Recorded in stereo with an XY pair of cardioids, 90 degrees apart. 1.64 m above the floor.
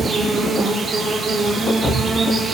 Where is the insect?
40° right, 9 m.